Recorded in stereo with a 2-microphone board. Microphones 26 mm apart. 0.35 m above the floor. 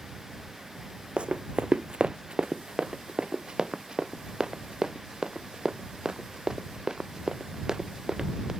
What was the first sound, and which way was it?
Running footsteps, 45° right (ahead or behind).